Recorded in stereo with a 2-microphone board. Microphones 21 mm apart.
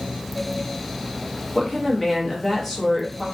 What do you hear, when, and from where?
1.6 s a woman speaking: 10° left (ahead or behind), 0.9 m